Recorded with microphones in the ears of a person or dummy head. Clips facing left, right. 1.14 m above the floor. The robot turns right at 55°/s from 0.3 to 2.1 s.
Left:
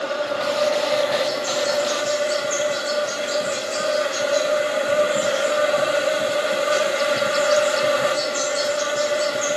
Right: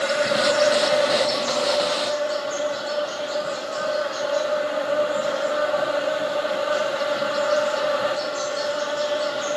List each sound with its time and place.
0.0 s an insect: 50° right, 1.1 m; by 9.6 s 45° left, 1.1 m